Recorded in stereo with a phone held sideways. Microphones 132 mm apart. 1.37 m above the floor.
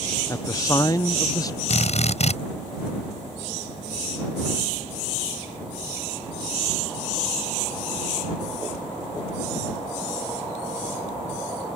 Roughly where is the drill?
Left.